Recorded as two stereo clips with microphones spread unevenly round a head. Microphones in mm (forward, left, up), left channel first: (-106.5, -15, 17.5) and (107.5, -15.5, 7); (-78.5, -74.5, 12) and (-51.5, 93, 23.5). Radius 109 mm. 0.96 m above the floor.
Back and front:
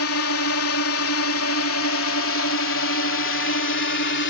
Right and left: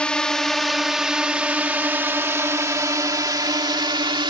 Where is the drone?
Straight behind; by 4.3 s 140° left.